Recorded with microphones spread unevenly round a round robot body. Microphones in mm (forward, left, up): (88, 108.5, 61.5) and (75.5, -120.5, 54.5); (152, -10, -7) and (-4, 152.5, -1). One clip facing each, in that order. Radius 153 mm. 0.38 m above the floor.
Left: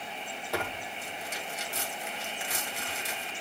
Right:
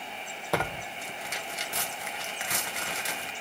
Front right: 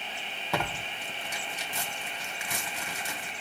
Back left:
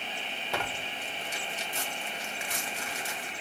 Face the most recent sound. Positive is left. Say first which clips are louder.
# right 4 dB, front right 3 dB
turn(degrees=-75)